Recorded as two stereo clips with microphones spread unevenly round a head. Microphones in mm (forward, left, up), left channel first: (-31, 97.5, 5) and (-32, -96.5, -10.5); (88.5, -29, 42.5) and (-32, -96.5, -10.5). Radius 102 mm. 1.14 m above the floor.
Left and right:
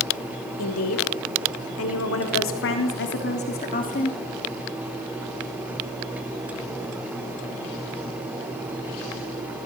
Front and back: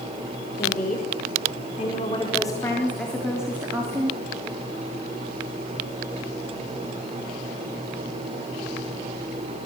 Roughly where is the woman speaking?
Left.